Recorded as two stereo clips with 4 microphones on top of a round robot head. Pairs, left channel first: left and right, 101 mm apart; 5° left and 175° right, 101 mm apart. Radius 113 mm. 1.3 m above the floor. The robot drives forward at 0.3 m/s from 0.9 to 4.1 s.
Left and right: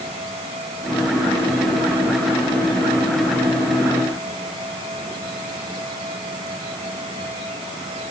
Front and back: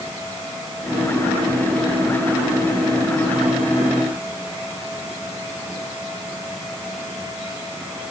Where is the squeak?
I don't hear a squeak.